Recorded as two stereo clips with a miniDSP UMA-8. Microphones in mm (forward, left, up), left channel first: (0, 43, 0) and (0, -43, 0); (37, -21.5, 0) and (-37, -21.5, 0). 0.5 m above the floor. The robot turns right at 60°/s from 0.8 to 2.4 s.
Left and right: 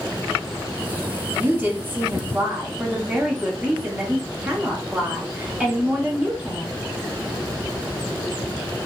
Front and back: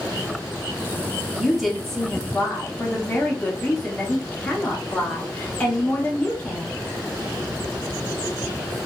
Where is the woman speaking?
105° right, 1.2 m; by 6.7 s 40° right, 1.2 m.